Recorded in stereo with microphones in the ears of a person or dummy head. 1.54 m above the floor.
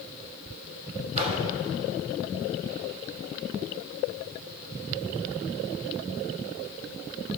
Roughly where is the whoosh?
Right.